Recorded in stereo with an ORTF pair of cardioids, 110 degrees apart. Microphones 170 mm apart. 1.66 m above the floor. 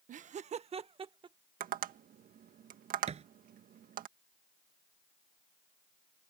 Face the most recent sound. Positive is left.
turn(degrees=-40)